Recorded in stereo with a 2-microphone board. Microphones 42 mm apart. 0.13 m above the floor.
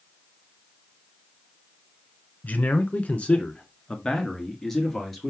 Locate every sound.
2.4 s a man speaking: 40° left (ahead or behind), 1.3 m; by 5.3 s 5° left (ahead or behind), 1.8 m